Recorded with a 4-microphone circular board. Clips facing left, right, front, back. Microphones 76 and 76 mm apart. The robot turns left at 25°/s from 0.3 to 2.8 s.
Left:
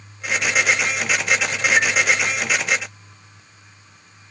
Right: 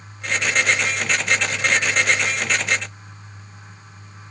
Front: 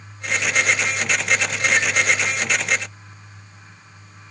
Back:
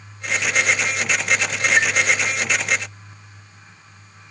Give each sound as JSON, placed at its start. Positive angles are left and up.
{"t": 1.8, "sound": "a chime", "azimuth_deg": 125, "distance_m": 0.6}